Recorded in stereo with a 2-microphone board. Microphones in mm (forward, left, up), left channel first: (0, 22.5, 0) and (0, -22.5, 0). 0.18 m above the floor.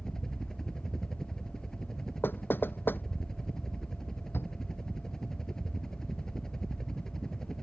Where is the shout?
55° left (ahead or behind).